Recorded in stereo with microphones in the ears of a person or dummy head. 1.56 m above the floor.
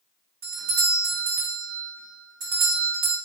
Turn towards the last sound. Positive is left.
turn(degrees=-75)  # may be behind; listen again after turning